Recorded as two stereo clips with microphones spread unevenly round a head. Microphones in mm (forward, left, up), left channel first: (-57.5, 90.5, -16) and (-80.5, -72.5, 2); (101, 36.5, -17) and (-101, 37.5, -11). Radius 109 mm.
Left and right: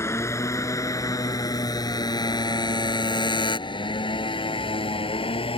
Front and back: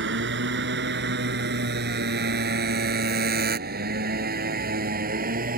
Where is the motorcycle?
155° left; by 5.6 s 135° left.